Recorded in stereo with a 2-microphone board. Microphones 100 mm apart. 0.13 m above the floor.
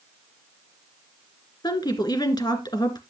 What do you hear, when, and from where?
1.6 s a woman speaking: 45° left (ahead or behind), 1.9 m